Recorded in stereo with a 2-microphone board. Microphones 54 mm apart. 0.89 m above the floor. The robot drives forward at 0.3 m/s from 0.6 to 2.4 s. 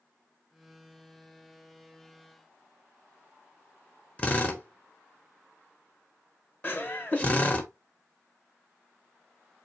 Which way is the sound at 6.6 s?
35° left (ahead or behind).